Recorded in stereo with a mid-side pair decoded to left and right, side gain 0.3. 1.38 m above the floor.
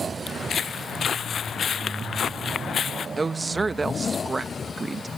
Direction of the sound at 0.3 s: 70° left.